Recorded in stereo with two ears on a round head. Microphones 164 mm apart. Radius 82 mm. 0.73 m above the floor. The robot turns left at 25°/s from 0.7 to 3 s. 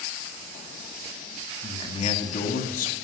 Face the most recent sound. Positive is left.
turn(degrees=110)